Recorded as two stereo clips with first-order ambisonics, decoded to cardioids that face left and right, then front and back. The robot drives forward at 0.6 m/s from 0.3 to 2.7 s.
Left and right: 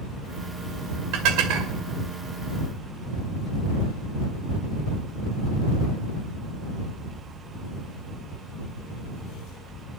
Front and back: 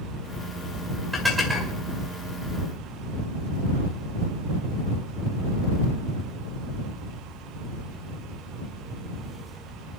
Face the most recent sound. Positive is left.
turn(degrees=-105)